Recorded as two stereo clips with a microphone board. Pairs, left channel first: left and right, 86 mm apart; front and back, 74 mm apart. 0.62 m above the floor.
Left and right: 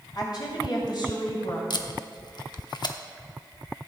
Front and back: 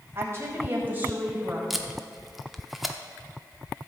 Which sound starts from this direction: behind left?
A woman speaking, at 0.1 s.